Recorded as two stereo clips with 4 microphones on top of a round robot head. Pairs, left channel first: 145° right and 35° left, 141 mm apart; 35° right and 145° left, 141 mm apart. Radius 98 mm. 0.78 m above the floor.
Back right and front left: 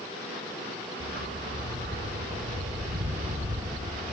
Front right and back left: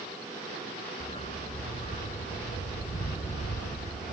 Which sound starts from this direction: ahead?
A dog barking, at 1.0 s.